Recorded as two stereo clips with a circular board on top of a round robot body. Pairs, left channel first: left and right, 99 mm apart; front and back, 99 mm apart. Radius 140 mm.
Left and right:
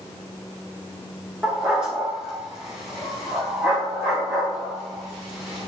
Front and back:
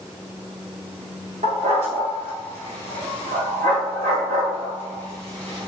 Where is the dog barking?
175° right, 2.5 m.